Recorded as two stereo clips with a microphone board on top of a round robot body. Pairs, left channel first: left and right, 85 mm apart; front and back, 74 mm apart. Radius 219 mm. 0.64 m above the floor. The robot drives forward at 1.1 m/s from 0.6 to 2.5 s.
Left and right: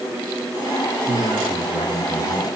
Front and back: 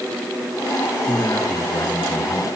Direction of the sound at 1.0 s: 60° right.